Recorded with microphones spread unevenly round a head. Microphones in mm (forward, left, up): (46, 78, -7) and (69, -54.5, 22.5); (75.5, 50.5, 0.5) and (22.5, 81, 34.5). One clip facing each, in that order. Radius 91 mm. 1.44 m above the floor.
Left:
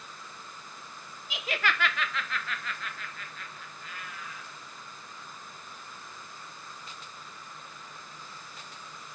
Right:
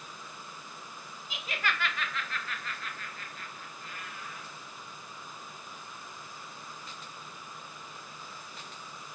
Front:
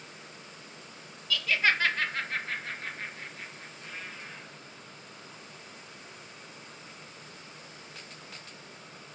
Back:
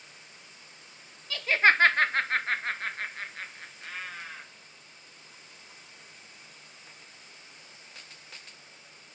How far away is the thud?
I don't hear a thud.